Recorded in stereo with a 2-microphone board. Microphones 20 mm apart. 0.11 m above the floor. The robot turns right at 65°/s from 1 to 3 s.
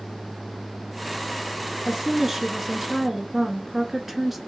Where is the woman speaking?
20° right (ahead or behind), 1.2 m; by 4.4 s 5° right (ahead or behind), 1.2 m.